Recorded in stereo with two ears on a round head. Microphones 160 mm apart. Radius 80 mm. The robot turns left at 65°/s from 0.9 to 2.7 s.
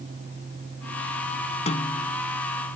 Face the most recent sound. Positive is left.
turn(degrees=-30)